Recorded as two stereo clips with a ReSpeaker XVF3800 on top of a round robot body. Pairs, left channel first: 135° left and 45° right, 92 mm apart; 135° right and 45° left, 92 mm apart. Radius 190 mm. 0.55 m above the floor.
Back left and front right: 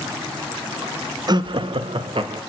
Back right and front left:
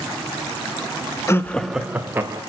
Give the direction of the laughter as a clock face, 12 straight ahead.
3 o'clock.